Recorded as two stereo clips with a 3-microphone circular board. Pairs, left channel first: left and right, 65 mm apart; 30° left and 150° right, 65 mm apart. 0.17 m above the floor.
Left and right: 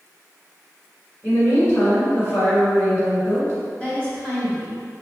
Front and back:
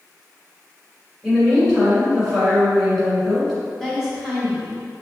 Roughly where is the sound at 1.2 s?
Behind left.